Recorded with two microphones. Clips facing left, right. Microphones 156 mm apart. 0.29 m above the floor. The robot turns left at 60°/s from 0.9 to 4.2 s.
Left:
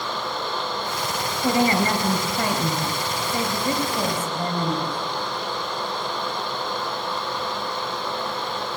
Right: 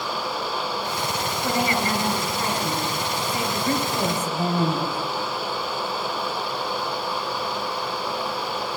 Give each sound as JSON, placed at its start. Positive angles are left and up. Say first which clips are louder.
{"t": 1.4, "sound": "a woman speaking", "louder": "left 5 dB", "azimuth_deg": 160, "distance_m": 4.0}